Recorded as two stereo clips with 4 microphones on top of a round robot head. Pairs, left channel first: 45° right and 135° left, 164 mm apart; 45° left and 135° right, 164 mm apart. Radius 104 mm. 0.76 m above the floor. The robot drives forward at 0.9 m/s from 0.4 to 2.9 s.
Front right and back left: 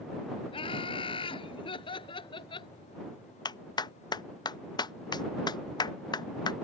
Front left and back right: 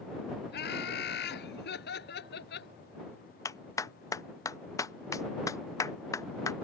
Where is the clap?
10° right.